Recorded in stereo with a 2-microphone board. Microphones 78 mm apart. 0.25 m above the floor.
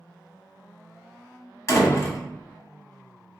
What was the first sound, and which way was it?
A door slam, 40° left (ahead or behind).